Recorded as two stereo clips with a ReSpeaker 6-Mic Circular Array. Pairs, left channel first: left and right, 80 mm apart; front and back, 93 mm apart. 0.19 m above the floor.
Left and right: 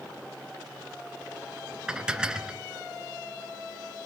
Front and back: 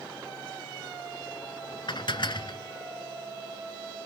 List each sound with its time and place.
1.9 s dishes clattering: 15° right, 1.4 m